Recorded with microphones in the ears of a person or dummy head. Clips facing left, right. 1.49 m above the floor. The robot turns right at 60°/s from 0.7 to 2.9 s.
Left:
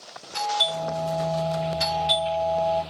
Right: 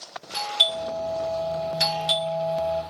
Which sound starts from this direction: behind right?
A doorbell, at 0.3 s.